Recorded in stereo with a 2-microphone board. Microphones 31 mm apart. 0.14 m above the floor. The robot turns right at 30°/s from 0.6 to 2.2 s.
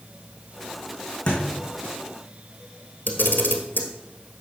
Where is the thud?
30° left (ahead or behind), 4 m; by 1.4 s 25° left (ahead or behind), 4 m.